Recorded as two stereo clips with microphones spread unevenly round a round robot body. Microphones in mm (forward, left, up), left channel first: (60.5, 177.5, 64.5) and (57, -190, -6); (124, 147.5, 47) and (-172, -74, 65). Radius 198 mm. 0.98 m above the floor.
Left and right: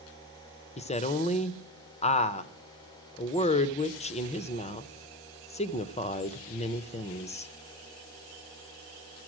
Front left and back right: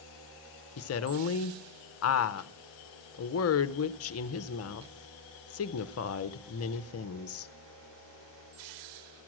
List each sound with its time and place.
0.8 s a woman speaking: 10° left, 0.5 m